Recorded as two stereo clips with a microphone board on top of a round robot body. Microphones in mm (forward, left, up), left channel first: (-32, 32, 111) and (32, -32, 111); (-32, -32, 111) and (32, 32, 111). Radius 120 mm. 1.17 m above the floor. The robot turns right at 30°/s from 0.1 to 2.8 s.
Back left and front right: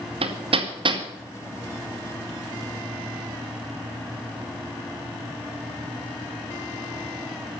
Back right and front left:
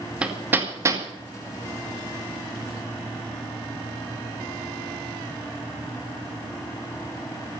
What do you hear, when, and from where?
0.2 s hammering: 35° right, 2.5 m; by 1.0 s 10° right, 2.5 m